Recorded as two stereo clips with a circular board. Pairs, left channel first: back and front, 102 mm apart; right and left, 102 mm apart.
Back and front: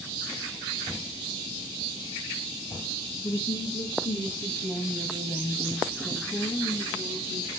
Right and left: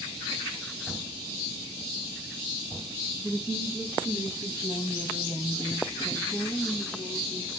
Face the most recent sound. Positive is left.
turn(degrees=-150)